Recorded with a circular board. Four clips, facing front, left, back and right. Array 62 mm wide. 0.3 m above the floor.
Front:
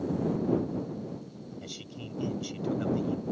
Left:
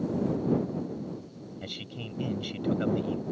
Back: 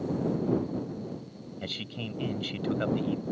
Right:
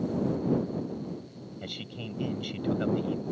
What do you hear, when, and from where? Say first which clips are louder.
1.6 s a man speaking: right 2 dB, back 5 dB; 175° left